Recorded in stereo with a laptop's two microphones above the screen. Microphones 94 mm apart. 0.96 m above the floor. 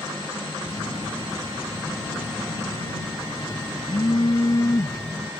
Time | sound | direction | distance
0.6 | a phone buzzing | 40° left (ahead or behind) | ?